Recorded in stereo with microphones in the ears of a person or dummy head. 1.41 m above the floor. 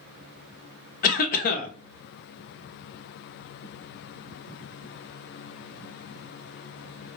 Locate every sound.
1.0 s a cough: 40° left (ahead or behind), 0.6 m